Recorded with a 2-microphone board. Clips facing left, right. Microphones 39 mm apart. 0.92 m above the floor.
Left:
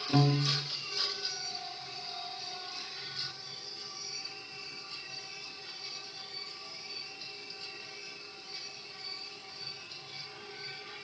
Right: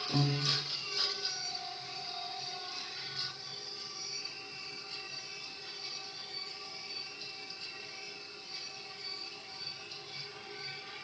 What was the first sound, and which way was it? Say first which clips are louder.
A piano: left 5 dB; 50° left (ahead or behind).